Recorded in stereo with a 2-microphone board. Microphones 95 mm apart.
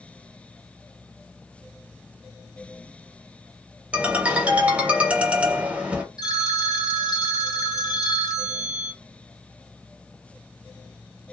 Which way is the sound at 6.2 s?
45° left (ahead or behind).